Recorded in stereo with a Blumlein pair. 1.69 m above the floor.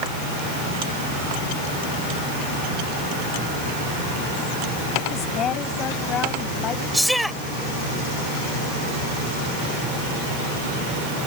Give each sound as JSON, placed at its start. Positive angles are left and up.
{"t": 5.1, "sound": "a woman speaking", "azimuth_deg": 30}
{"t": 6.9, "sound": "a shout", "azimuth_deg": 0}